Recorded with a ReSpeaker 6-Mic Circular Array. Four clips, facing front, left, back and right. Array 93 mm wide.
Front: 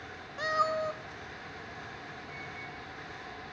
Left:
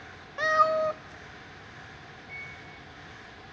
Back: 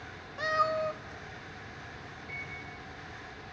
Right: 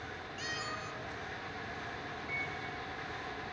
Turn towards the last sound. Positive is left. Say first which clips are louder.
# right 4 dB, even
turn(degrees=-115)